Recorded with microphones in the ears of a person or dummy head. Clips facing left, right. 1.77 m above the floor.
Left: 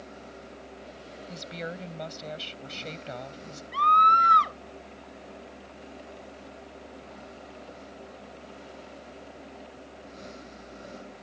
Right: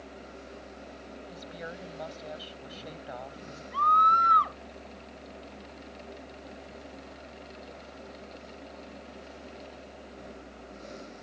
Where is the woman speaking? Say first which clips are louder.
Left 6 dB; 35° left (ahead or behind).